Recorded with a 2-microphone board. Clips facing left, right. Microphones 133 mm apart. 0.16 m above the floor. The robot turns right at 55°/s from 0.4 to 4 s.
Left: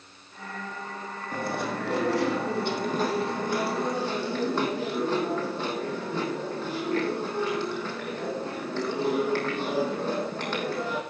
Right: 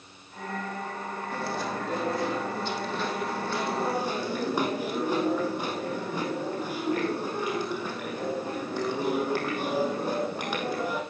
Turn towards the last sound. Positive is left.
turn(degrees=-165)